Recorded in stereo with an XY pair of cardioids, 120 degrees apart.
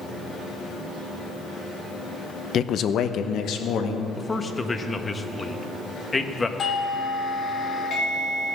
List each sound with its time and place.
2.5 s a man speaking: 45° left, 0.7 m; by 4.0 s 70° left, 1.9 m
4.2 s a man speaking: 20° left, 1.1 m
6.6 s a doorbell: 40° left, 1.5 m